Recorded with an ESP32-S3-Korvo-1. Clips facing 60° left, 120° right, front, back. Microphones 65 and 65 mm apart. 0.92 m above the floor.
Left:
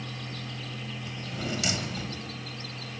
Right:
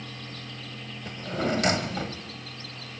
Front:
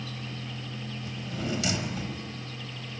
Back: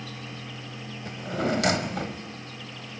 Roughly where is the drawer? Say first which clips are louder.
Right 8 dB, back 7 dB; behind right.